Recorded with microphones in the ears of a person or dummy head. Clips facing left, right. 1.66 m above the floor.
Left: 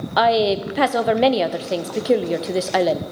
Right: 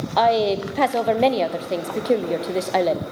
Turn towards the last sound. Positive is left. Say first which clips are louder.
# left 1 dB
turn(degrees=0)  # may be behind; listen again after turning